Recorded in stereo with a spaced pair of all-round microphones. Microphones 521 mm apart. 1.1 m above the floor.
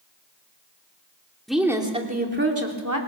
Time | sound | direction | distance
1.5 | a woman speaking | centre (ahead or behind) | 3 m